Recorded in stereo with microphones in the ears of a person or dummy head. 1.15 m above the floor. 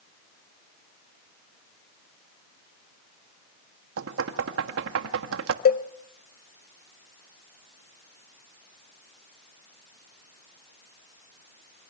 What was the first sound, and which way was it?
Knocking, 80° right.